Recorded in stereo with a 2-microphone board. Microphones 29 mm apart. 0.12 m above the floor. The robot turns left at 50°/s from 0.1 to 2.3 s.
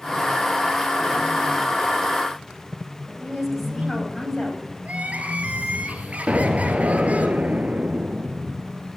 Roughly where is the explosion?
Right.